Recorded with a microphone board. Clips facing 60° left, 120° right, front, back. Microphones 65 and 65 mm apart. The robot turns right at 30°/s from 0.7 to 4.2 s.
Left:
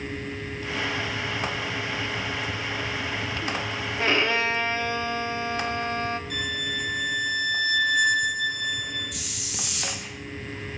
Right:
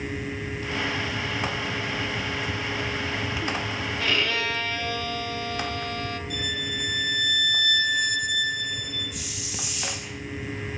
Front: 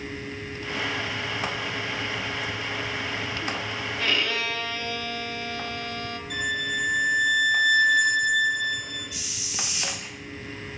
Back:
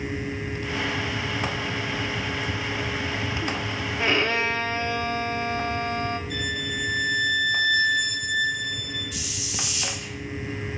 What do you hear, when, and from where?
4.0 s a violin: 115° left, 0.9 m; by 6.2 s 125° left, 0.9 m
6.3 s a violin: 30° left, 7 m
9.1 s a hiss: 65° left, 2.5 m